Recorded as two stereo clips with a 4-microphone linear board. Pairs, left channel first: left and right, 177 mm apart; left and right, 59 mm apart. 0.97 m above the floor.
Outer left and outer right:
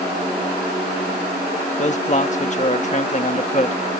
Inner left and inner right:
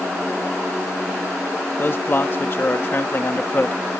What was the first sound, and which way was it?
A man speaking, 45° left (ahead or behind).